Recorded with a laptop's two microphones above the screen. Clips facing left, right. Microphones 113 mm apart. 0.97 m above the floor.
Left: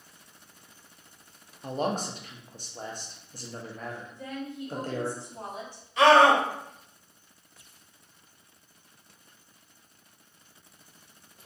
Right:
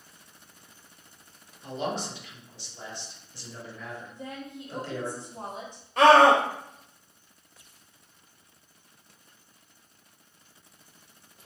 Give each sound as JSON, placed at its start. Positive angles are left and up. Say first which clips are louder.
{"t": 1.6, "sound": "a man speaking", "louder": "left 2 dB", "side_deg": 45, "distance_m": 0.7}
{"t": 4.1, "sound": "a woman speaking", "louder": "left 2 dB", "side_deg": -20, "distance_m": 0.9}
{"t": 6.0, "sound": "a scream", "louder": "right 2 dB", "side_deg": -50, "distance_m": 1.0}